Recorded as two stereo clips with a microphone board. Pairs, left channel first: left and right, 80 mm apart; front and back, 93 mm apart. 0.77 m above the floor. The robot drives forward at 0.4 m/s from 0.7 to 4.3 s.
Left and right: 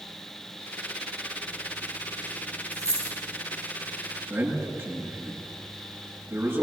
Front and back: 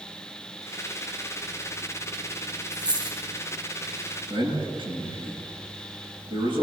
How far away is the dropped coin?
About 5 m.